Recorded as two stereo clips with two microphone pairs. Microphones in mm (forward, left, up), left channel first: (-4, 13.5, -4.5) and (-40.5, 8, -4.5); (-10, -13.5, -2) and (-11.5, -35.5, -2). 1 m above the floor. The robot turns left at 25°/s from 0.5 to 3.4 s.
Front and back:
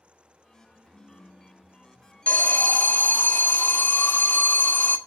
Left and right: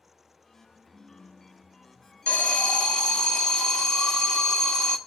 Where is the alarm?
65° left, 1.2 m; by 5.0 s 35° left, 1.2 m.